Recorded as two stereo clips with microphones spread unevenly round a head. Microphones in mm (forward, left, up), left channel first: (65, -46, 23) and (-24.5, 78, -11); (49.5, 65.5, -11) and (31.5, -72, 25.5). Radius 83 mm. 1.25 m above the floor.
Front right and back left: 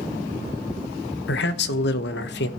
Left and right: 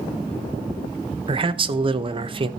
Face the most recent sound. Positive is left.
turn(degrees=-45)